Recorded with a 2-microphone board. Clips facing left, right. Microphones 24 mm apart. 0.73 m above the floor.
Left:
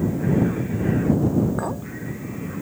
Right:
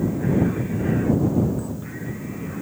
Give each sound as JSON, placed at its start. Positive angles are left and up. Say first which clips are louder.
{"t": 1.6, "sound": "a clink", "louder": "left 4 dB", "side_deg": 60}